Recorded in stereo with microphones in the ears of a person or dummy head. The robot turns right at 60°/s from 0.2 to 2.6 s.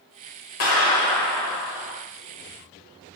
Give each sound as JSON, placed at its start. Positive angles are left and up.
{"t": 0.6, "sound": "a clap", "azimuth_deg": 125, "distance_m": 1.3}